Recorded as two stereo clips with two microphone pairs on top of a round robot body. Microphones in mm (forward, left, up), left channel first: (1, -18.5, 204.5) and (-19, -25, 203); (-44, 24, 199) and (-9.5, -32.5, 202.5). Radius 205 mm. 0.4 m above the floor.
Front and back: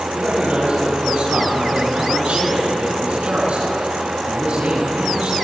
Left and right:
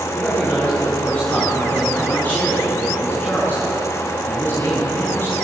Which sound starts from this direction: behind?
A man speaking, at 0.1 s.